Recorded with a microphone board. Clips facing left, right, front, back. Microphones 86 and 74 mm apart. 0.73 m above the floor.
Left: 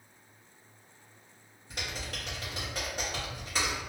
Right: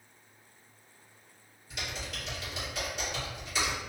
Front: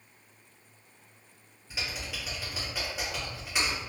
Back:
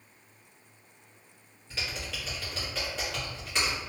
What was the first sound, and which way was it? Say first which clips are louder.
Typing on a keyboard: even, even; 75° left.